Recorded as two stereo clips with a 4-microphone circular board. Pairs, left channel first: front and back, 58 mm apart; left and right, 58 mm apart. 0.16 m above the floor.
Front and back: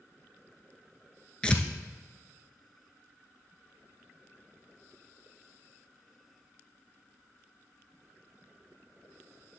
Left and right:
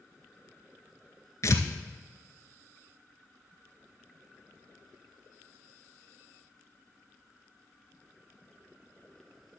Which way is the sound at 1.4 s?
70° left.